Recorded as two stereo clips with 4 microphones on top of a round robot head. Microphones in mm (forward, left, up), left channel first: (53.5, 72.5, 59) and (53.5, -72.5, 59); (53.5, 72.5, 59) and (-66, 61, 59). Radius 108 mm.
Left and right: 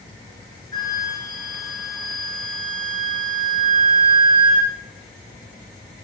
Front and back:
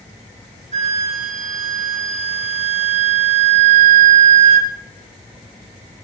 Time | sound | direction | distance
0.7 | a flute | 160° left | 1.5 m